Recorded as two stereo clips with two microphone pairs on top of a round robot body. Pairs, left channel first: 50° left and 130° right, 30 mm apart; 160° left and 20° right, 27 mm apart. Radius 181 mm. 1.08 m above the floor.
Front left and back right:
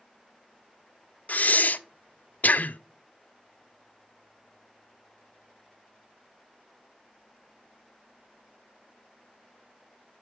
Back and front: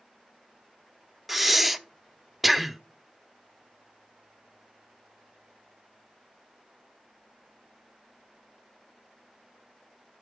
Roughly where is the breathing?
Left.